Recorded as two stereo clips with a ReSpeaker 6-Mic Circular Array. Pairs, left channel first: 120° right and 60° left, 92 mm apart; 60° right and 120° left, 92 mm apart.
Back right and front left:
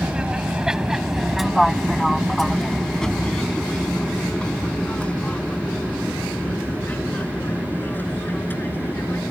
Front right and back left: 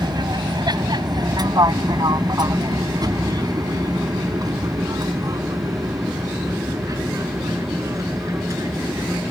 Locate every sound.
0.0 s an aircraft: 135° left; by 9.3 s 175° left